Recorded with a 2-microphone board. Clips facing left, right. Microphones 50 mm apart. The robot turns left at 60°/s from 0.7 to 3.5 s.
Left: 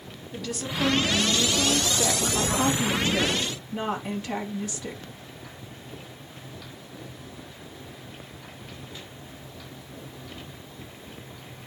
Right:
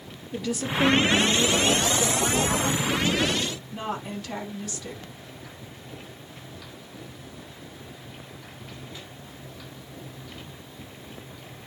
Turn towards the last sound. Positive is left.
turn(degrees=25)